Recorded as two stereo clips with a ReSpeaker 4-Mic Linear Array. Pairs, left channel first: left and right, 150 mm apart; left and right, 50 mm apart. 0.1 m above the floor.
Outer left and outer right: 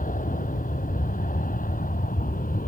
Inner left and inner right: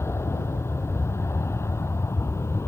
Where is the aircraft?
60° left (ahead or behind); by 2.7 s 65° left (ahead or behind).